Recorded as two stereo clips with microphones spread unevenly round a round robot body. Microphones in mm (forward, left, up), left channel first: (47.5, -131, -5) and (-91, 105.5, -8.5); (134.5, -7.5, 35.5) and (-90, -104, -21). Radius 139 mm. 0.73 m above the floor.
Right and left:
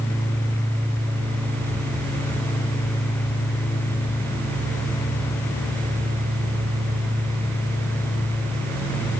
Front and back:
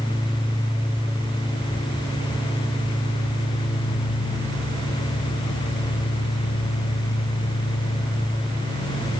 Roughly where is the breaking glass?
No breaking glass in this recording.